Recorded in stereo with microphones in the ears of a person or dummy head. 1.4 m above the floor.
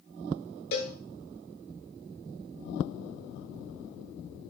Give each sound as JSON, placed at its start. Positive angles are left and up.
{"t": 0.7, "sound": "a cowbell", "side_deg": 55, "distance_m": 0.7}